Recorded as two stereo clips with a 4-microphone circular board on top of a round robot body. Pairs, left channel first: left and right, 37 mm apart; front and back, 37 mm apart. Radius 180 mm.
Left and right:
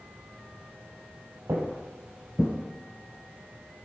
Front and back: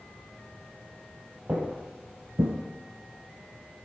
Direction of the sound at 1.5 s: 125° right.